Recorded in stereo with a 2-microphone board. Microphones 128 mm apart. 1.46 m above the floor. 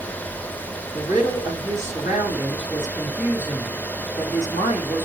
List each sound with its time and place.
0.9 s a woman speaking: 80° left, 2 m